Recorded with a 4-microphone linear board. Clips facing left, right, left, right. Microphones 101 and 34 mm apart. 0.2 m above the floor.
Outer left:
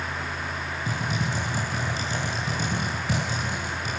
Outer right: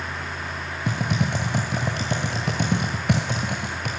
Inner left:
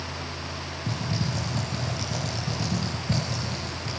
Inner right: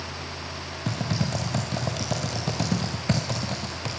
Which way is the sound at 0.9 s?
65° right (ahead or behind).